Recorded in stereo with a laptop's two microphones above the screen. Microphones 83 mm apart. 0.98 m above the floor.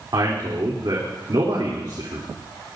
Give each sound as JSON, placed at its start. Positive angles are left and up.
{"t": 0.1, "sound": "a man speaking", "side_deg": -60, "distance_m": 3.0}